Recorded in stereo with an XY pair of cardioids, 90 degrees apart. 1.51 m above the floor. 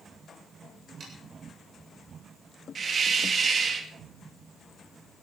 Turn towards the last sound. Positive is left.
turn(degrees=-50)